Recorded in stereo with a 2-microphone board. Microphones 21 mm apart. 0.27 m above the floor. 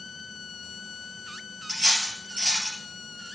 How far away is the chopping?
I don't hear chopping.